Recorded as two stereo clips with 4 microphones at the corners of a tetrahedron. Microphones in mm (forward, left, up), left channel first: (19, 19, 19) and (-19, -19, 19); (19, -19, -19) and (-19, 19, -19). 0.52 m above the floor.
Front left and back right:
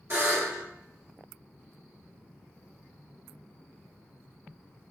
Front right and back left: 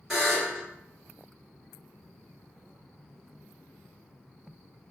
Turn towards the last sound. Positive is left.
turn(degrees=-135)